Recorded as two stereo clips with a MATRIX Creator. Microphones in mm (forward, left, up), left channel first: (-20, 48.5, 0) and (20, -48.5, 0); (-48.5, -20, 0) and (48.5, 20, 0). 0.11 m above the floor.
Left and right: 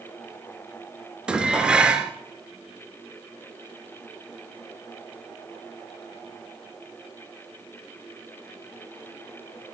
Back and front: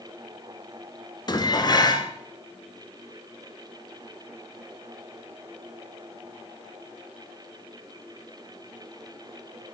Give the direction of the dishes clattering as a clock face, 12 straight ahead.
5 o'clock.